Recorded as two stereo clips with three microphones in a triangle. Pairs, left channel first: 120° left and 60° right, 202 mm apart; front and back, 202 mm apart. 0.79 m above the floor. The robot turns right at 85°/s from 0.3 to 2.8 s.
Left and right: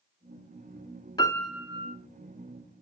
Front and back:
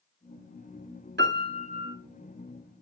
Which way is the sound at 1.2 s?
170° right.